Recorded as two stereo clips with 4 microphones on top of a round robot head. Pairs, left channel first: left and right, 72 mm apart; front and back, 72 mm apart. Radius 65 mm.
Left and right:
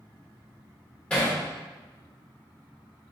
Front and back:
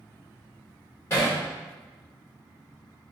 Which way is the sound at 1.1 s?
30° left.